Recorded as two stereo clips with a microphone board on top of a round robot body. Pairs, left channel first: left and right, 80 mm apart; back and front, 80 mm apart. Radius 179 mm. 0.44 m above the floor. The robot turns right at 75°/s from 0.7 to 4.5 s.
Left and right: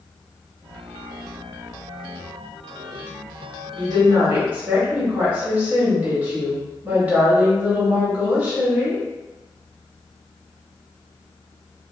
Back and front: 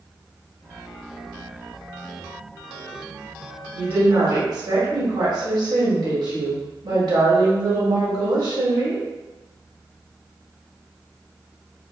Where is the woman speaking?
75° right, 1.9 m; by 9.0 s 20° right, 1.9 m.